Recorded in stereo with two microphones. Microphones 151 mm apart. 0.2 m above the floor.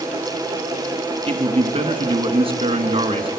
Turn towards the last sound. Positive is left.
turn(degrees=-40)  # may be behind; listen again after turning